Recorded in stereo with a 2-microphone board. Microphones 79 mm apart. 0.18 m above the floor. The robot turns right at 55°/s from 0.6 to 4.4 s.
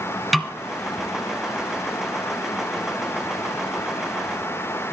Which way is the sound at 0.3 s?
Centre (ahead or behind).